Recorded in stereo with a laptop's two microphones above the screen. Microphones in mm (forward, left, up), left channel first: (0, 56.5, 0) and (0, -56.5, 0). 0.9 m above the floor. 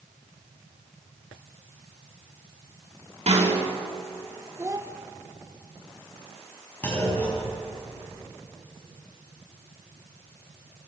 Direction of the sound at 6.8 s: 20° left (ahead or behind).